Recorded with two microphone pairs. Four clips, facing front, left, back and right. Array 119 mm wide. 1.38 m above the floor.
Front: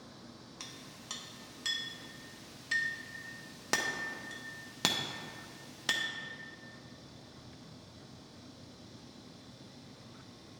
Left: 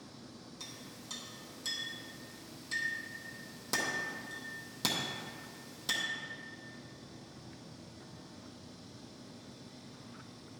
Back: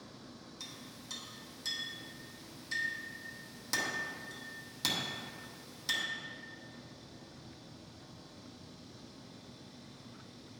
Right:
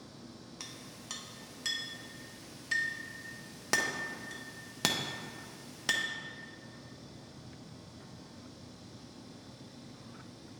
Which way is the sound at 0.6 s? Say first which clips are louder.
Right 1 dB, even; 25° right.